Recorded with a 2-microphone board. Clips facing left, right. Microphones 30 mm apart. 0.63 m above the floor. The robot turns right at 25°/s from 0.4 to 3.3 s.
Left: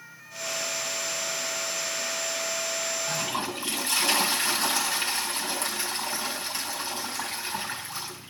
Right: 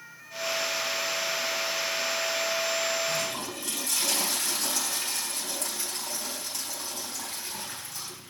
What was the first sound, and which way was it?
A toilet flushing, 25° left (ahead or behind).